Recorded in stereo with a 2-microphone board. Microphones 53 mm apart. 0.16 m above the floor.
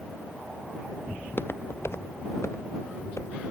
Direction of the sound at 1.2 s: 35° left (ahead or behind).